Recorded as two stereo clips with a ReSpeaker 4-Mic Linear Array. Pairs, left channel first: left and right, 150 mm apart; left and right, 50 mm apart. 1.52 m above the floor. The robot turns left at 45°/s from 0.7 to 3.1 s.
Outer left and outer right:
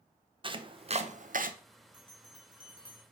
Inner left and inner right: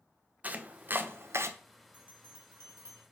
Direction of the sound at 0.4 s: 35° right (ahead or behind).